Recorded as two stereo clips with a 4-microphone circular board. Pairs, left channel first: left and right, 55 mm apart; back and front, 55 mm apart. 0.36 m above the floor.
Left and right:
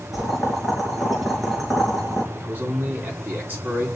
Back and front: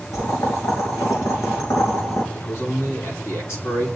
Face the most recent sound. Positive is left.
turn(degrees=-145)